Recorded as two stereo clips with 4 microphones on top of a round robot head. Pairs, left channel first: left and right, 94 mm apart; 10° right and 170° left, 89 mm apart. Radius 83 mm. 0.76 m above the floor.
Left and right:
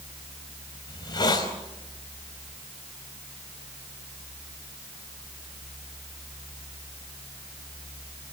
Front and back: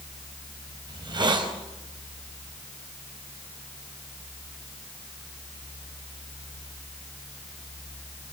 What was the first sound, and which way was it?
A hiss, 135° left.